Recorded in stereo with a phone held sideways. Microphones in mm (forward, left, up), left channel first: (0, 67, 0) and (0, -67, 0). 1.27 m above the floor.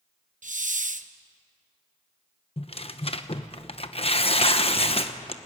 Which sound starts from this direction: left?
Tearing paper, at 2.6 s.